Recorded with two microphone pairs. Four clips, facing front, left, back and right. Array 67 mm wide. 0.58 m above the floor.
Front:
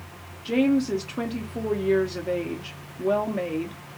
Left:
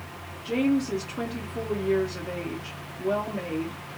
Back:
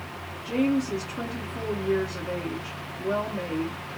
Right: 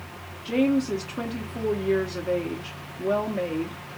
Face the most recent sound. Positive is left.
turn(degrees=-20)